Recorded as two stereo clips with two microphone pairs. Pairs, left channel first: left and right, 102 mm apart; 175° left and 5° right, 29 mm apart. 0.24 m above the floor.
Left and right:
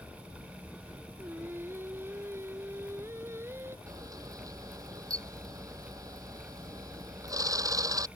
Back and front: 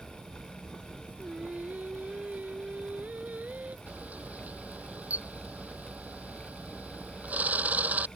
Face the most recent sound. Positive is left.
turn(degrees=-35)